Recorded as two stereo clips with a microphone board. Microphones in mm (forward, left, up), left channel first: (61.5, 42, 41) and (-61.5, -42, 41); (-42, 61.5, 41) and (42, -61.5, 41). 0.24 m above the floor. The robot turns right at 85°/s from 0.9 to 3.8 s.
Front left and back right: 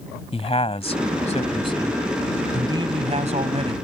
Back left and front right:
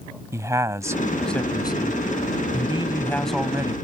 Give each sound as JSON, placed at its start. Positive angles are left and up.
{"t": 0.3, "sound": "a man speaking", "azimuth_deg": 10}